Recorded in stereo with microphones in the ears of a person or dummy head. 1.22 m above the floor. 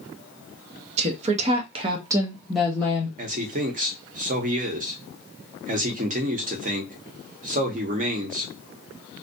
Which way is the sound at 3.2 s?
40° right (ahead or behind).